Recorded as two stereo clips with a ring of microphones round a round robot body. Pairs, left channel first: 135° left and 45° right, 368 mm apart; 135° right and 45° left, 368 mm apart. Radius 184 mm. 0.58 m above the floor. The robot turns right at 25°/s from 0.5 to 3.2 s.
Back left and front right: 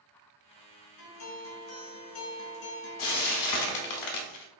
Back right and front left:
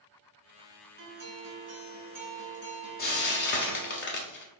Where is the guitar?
85° left, 0.9 m; by 4.0 s 140° left, 0.9 m.